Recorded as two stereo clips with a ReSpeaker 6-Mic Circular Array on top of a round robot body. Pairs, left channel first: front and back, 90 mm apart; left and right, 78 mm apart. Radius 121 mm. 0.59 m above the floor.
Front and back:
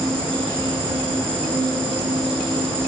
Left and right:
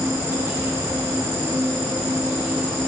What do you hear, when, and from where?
0.0 s an insect: 150° right, 8.5 m